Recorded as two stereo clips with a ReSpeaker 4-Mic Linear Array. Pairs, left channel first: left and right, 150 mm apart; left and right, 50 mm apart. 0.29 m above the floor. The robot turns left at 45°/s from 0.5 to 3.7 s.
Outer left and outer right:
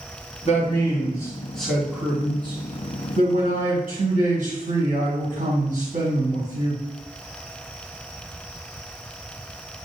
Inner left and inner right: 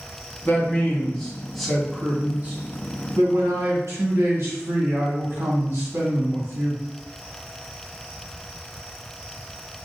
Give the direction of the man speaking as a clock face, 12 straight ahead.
10 o'clock.